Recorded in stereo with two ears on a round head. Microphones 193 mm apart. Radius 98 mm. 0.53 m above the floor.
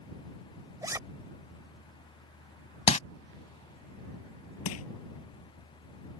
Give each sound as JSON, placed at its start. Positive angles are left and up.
{"t": 0.8, "sound": "a zipper", "side_deg": -15}
{"t": 2.9, "sound": "crumpling", "side_deg": 30}
{"t": 4.7, "sound": "crushing", "side_deg": 70}